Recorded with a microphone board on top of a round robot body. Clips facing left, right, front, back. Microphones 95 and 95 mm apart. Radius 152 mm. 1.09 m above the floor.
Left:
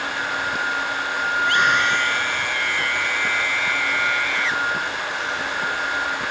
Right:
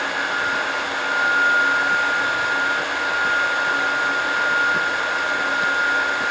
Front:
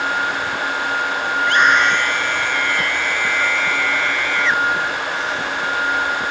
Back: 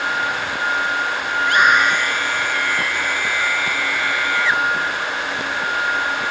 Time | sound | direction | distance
1.4 | a scream | 95° left | ?